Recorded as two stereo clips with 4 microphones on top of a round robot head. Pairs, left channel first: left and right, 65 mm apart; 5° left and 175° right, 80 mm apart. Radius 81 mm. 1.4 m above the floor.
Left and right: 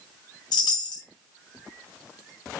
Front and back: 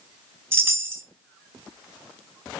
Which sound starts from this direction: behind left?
A chime, at 0.5 s.